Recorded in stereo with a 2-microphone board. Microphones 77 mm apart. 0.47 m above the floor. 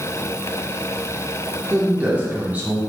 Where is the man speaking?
20° right (ahead or behind), 0.8 m.